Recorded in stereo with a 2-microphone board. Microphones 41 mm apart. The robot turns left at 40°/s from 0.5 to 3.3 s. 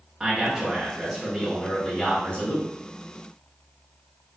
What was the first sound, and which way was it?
A man speaking, 155° right.